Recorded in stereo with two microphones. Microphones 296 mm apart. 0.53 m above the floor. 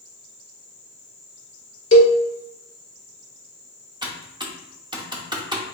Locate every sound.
1.9 s a cowbell: 40° left (ahead or behind), 1.0 m
4.0 s typing on a keyboard: 15° right (ahead or behind), 0.8 m